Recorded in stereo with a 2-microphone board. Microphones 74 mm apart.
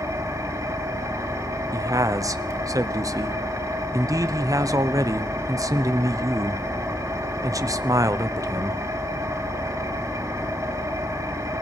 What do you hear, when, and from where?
0.0 s an engine running: 50° right (ahead or behind), 4 m
1.7 s a man speaking: 50° right (ahead or behind), 1.0 m